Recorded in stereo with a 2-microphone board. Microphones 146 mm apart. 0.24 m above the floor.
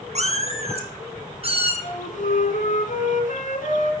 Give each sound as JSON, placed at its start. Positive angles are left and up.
{"t": 0.1, "sound": "a cat meowing", "side_deg": -50, "distance_m": 1.5}
{"t": 1.8, "sound": "a flute", "side_deg": 60, "distance_m": 2.0}